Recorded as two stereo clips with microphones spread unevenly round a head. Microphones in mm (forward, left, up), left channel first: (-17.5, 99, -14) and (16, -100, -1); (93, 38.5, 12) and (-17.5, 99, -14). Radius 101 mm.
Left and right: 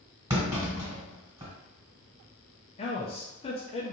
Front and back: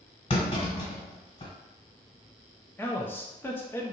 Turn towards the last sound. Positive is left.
turn(degrees=55)